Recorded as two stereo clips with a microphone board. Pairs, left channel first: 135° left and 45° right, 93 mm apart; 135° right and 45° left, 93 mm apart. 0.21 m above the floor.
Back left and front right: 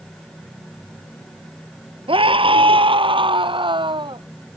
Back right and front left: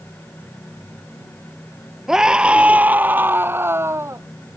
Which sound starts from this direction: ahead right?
A scream, at 2.1 s.